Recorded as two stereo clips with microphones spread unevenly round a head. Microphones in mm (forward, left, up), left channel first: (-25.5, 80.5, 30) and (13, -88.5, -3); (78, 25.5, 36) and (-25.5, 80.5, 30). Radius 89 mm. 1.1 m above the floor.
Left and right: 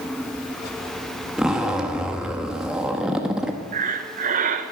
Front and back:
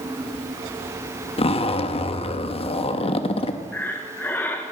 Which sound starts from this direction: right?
Breathing, at 3.7 s.